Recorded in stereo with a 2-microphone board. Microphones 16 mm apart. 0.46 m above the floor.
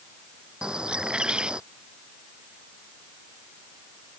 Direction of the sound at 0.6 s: 75° right (ahead or behind).